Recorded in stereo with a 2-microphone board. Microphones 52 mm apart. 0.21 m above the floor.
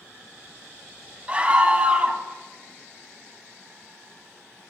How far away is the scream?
About 1.6 m.